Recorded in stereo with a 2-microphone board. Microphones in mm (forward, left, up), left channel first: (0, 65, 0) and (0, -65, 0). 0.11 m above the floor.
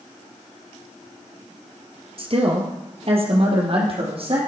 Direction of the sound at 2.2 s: 45° right (ahead or behind).